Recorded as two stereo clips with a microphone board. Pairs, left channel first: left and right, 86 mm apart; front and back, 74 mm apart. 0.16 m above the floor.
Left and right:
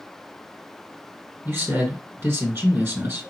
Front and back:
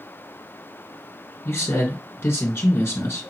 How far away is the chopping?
I don't hear chopping.